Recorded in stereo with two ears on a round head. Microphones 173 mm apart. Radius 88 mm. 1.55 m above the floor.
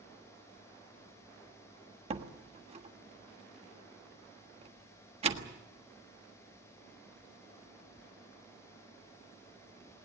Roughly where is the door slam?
Right.